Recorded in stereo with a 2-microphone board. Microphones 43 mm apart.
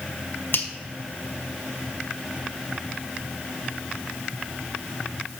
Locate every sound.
0.5 s a finger snap: 60° left (ahead or behind), 0.9 m